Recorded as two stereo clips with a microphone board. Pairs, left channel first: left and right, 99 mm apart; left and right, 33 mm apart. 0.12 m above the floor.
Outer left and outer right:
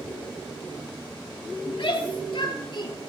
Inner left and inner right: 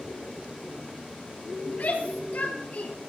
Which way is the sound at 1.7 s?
60° left (ahead or behind).